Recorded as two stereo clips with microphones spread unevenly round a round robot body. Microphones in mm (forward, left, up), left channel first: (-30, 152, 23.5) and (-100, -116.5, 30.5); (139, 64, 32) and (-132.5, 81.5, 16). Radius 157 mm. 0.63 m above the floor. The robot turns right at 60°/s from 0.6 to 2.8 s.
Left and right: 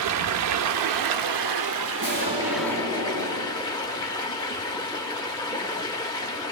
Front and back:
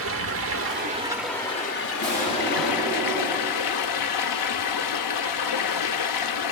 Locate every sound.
0.0 s running water: 135° right, 0.8 m; by 6.5 s straight ahead, 0.8 m
2.0 s an explosion: 80° right, 9.5 m; by 4.0 s 30° right, 9.5 m